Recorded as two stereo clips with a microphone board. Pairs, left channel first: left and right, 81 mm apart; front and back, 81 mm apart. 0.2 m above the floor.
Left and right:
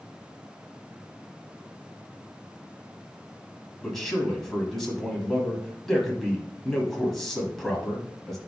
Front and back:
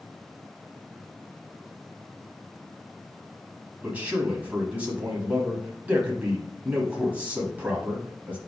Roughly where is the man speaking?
Behind.